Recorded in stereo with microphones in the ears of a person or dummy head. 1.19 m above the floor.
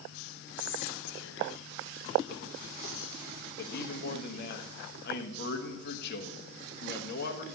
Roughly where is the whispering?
Left.